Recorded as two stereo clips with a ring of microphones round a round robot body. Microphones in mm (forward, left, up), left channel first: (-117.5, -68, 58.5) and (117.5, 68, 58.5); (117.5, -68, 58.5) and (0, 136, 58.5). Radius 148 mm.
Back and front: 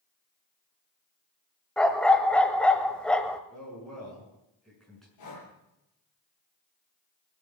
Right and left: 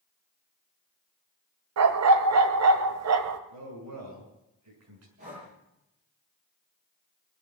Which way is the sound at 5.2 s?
Straight behind.